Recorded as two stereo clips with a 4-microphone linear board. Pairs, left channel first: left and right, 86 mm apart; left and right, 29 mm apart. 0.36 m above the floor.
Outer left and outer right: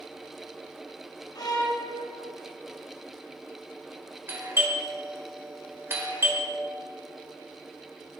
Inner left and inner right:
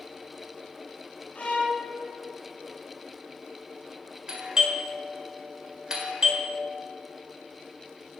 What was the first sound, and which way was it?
A violin, 50° left (ahead or behind).